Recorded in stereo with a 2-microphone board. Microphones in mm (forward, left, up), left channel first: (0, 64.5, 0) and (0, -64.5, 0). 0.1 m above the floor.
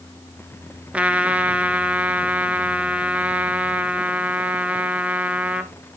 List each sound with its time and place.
0.9 s a trumpet: 10° right (ahead or behind), 0.6 m